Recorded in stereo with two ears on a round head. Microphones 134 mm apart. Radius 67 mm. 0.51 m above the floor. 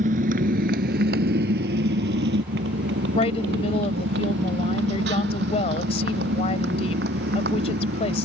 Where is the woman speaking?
45° left (ahead or behind).